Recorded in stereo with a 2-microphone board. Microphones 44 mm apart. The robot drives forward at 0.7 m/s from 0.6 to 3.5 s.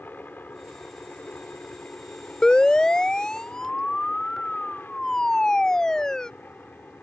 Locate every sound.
0.0 s a helicopter: 45° left (ahead or behind); by 7.0 s 50° left (ahead or behind)
2.4 s a siren: 20° left (ahead or behind); by 6.3 s 15° left (ahead or behind)